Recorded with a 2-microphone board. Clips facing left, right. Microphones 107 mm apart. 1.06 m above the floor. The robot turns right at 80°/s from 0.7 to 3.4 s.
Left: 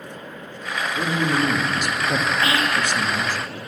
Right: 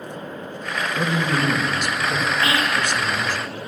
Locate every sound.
1.0 s a man speaking: 25° right, 1.7 m; by 3.4 s 170° left, 1.7 m
2.4 s whispering: 150° left, 2.5 m; by 2.9 s 175° right, 2.5 m